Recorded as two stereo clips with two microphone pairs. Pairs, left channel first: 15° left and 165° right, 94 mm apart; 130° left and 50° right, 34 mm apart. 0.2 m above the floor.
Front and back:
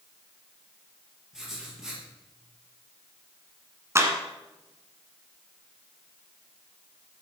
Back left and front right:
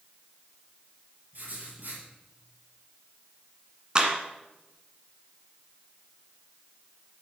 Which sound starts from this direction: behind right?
A clap, at 4.0 s.